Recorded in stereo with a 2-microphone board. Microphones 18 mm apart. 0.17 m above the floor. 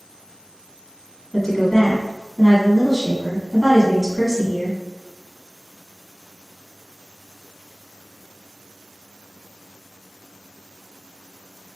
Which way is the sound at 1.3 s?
15° left (ahead or behind).